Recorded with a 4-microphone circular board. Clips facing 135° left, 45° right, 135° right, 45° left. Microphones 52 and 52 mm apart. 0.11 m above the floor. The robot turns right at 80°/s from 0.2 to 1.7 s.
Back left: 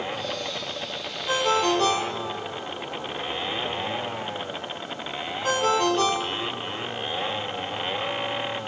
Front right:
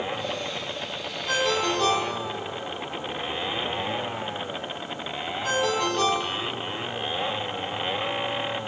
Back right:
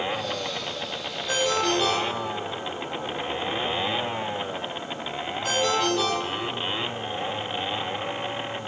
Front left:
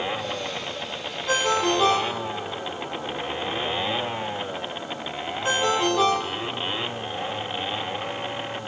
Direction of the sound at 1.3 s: 70° left.